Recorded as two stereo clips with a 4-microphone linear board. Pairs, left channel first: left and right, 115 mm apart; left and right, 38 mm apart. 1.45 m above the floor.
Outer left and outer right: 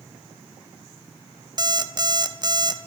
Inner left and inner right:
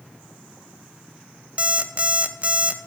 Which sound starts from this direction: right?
An alarm clock, at 1.6 s.